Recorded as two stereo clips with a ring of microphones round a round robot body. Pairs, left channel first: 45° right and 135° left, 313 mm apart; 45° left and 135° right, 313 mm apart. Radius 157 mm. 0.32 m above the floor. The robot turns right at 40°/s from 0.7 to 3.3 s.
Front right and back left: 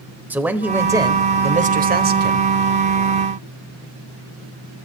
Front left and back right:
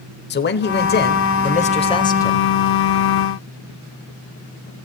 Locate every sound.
0.3 s a man speaking: 55° left, 0.9 m; by 2.5 s 125° left, 0.9 m